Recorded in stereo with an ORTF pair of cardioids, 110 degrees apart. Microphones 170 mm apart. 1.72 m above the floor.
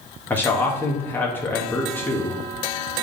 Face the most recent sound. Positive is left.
turn(degrees=10)